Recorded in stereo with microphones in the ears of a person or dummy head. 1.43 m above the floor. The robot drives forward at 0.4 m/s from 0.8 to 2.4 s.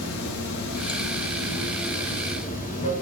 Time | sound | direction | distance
0.0 | running water | 65° left (ahead or behind) | 1.3 m